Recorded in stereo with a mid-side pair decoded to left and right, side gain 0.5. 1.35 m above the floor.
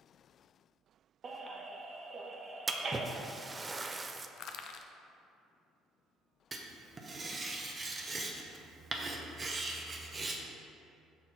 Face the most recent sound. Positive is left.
turn(degrees=-30)